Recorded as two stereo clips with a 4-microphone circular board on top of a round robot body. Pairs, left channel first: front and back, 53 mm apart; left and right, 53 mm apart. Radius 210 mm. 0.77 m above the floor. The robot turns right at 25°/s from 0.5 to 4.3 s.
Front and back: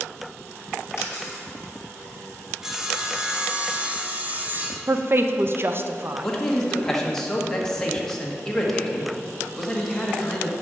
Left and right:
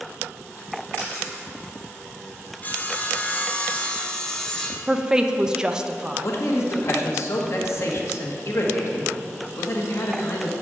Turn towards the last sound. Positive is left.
turn(degrees=80)